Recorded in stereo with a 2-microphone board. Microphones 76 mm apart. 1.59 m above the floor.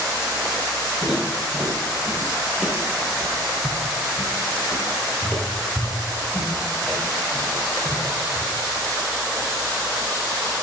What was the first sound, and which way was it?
Footsteps, 10° right (ahead or behind).